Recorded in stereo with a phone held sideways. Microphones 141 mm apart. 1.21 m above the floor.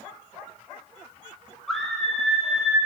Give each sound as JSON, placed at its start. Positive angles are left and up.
{"t": 1.7, "sound": "a scream", "side_deg": 0, "distance_m": 8.5}